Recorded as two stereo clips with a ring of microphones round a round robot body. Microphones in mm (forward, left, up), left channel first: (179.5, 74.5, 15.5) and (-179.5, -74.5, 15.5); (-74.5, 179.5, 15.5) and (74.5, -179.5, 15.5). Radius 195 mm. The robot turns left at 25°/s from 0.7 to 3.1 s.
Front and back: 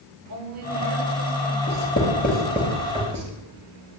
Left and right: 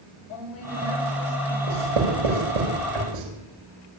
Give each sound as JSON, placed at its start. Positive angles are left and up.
{"t": 0.3, "sound": "a woman speaking", "azimuth_deg": 170, "distance_m": 9.5}
{"t": 1.7, "sound": "writing", "azimuth_deg": -50, "distance_m": 6.0}